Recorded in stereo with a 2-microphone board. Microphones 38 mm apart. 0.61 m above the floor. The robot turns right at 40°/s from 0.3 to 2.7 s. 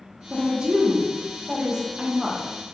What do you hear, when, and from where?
0.3 s a woman speaking: 20° right (ahead or behind), 0.5 m; by 2.4 s 10° right (ahead or behind), 0.5 m